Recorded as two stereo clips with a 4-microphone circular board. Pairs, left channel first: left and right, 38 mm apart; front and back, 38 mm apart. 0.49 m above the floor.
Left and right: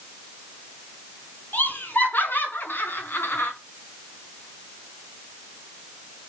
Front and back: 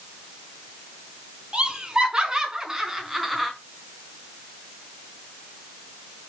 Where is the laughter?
115° left, 5.5 m; by 3.5 s 90° left, 4.5 m.